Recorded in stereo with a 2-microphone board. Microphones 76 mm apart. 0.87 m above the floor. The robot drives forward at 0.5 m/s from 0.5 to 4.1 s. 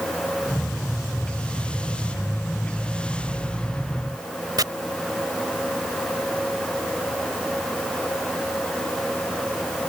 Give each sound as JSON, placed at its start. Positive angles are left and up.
{"t": 4.6, "sound": "chopping", "side_deg": -60}